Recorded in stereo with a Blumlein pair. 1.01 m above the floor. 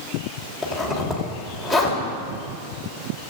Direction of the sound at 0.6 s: 5° right.